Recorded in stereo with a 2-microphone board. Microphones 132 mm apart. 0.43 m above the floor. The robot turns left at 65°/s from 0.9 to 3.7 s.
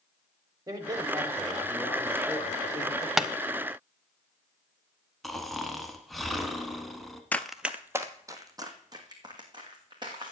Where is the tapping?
5° right (ahead or behind), 0.5 m; by 3.3 s 10° right (ahead or behind), 0.5 m.